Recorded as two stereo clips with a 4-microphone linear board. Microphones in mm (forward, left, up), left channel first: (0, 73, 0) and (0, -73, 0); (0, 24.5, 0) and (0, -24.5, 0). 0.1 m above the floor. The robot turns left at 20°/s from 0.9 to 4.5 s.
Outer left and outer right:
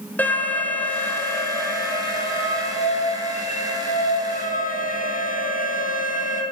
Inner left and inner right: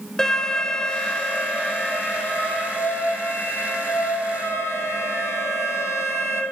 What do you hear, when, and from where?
0.2 s an alarm: 165° left, 3.5 m; by 6.4 s 95° left, 3.5 m